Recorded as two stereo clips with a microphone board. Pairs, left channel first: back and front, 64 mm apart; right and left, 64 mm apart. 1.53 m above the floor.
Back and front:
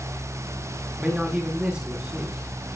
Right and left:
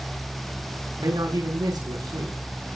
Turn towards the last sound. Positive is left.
turn(degrees=75)